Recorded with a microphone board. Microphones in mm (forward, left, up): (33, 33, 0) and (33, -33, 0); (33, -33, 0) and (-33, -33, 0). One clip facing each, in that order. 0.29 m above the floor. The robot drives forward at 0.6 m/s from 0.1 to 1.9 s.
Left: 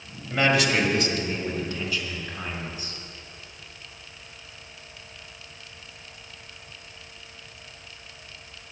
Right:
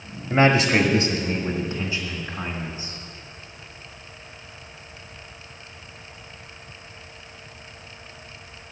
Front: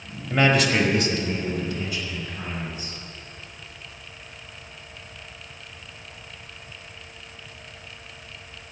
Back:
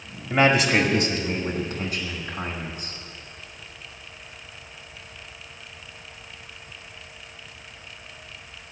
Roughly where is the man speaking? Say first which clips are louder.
Right 4 dB, back 1 dB; right.